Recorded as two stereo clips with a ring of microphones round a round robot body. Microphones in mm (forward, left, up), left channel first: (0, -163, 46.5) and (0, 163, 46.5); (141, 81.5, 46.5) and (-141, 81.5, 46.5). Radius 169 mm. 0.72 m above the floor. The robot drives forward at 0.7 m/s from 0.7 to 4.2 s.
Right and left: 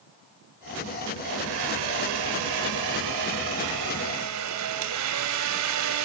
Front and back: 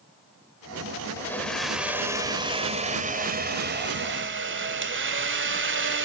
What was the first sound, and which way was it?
A blender, 80° left.